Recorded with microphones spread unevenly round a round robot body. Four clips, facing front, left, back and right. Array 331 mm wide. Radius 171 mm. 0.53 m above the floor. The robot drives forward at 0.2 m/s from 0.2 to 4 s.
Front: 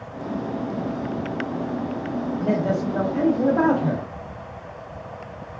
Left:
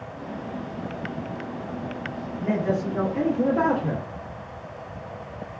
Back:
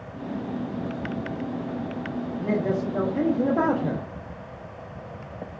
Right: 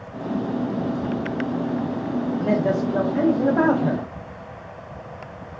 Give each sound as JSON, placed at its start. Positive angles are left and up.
{"t": 2.4, "sound": "a man speaking", "azimuth_deg": -40, "distance_m": 0.6}